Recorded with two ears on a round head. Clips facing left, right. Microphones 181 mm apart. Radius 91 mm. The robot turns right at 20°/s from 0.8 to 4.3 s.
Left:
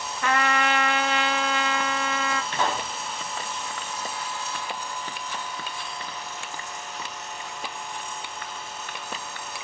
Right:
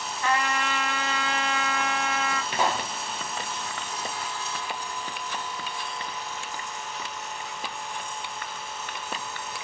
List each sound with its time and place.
0.2 s a trumpet: 55° left, 0.6 m; by 2.4 s 90° left, 0.6 m
2.5 s a pop: 10° right (ahead or behind), 1.1 m; by 2.9 s 5° right (ahead or behind), 1.1 m